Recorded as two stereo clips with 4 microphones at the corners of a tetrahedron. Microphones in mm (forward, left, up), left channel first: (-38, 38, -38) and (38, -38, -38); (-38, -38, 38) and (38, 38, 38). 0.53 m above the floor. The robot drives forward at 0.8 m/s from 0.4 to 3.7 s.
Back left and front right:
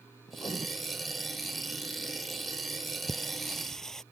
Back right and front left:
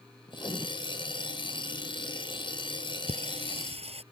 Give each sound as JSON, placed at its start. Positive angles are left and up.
{"t": 0.3, "sound": "writing", "azimuth_deg": 180}
{"t": 3.1, "sound": "singing", "azimuth_deg": 50}